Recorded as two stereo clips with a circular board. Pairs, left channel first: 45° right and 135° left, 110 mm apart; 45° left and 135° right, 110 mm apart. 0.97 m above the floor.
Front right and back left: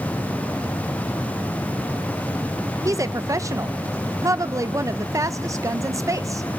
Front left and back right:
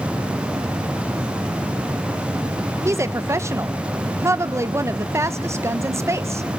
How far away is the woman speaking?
About 0.5 m.